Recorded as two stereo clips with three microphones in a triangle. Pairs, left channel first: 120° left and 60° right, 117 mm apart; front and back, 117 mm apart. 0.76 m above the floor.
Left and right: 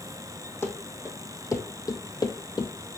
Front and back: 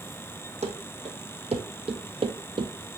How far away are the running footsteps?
About 1.8 m.